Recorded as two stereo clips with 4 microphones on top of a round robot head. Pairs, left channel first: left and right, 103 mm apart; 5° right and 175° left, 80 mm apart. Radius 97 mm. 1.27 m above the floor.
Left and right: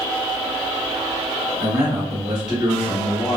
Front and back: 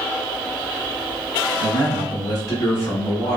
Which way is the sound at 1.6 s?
10° right.